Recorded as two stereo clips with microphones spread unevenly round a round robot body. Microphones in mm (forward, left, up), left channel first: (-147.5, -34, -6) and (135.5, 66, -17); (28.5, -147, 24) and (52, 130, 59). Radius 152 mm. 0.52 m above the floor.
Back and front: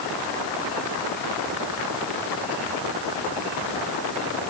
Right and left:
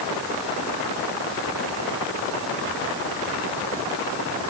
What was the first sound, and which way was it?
Only background noise.